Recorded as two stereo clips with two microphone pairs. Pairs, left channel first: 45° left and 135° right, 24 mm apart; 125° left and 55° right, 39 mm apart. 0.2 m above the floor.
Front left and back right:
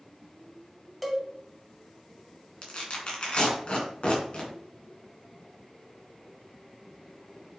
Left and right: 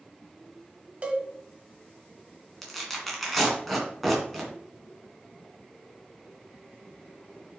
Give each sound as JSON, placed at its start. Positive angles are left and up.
{"t": 1.0, "sound": "a cowbell", "azimuth_deg": -50, "distance_m": 1.3}
{"t": 2.6, "sound": "tearing paper", "azimuth_deg": 35, "distance_m": 2.5}